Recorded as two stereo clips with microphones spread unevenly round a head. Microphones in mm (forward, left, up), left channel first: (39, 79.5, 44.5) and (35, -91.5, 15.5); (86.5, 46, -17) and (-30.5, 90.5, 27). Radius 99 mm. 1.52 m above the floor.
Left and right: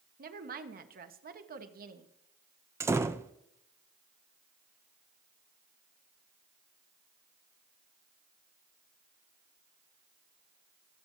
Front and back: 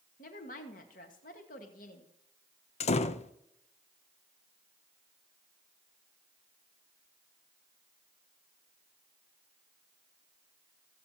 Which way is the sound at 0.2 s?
55° right.